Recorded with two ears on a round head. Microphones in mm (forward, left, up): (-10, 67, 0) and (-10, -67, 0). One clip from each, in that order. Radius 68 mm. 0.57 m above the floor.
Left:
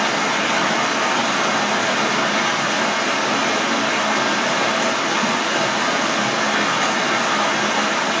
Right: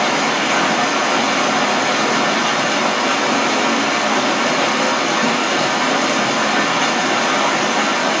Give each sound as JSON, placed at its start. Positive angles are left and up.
{"t": 0.0, "sound": "running water", "side_deg": 0, "distance_m": 1.2}